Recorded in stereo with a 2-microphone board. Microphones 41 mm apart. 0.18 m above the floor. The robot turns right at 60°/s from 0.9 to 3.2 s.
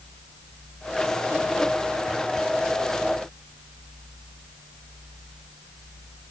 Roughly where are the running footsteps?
I don't hear running footsteps.